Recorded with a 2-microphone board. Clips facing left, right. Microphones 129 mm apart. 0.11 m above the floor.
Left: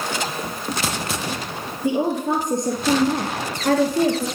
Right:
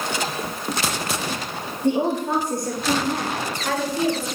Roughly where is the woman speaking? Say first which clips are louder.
Even; centre.